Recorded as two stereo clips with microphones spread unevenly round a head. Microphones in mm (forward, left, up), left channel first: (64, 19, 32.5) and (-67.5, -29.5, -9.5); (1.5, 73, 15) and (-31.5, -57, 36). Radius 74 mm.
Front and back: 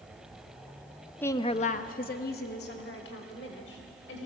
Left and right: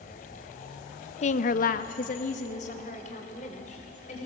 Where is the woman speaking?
105° left, 0.8 m; by 4.3 s 30° left, 4.5 m.